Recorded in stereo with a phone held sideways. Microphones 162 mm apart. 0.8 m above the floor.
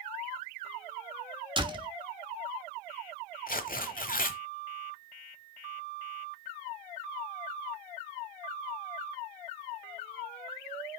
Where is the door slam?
30° right (ahead or behind), 1.1 m.